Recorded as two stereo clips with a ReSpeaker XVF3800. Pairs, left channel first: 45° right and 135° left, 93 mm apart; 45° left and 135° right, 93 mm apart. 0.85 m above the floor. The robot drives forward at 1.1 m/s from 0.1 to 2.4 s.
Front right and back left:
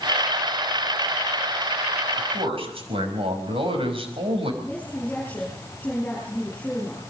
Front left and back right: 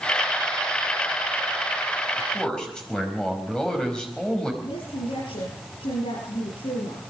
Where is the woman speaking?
25° left, 8.5 m.